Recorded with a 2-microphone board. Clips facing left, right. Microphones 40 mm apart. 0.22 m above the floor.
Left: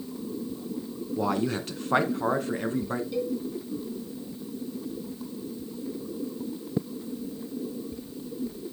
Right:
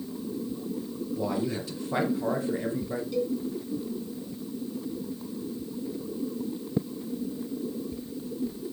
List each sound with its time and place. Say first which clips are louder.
1.2 s a man speaking: left 3 dB; 60° left (ahead or behind), 2 m
3.1 s a cowbell: right 2 dB; 15° left (ahead or behind), 2 m